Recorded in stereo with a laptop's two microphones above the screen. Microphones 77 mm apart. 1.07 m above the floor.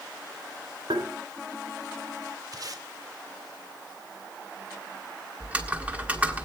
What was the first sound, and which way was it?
Tapping, 85° right.